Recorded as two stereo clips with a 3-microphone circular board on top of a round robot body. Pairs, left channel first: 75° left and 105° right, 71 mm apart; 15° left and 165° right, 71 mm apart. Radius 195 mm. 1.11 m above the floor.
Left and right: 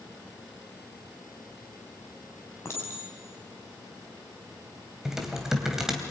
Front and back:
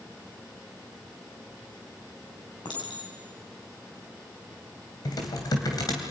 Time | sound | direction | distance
2.6 | a clink | 25° left | 7.5 m
5.0 | typing on a keyboard | 20° right | 2.5 m